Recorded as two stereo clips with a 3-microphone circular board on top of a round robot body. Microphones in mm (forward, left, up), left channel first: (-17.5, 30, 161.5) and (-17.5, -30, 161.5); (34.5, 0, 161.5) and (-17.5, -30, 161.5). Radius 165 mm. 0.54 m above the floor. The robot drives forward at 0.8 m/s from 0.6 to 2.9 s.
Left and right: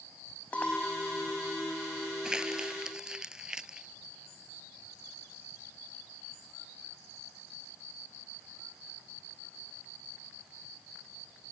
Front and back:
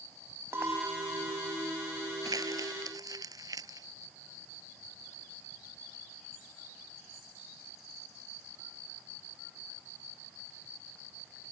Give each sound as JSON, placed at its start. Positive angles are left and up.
{"t": 0.5, "sound": "a clink", "azimuth_deg": 160}
{"t": 2.2, "sound": "crumpling", "azimuth_deg": -170}